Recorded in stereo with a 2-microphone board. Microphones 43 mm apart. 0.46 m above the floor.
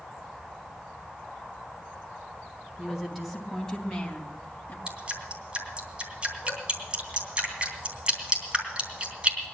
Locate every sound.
2.8 s a woman speaking: 5° right (ahead or behind), 4 m; by 4.8 s 40° left (ahead or behind), 3 m
4.9 s dripping: 25° right (ahead or behind), 3 m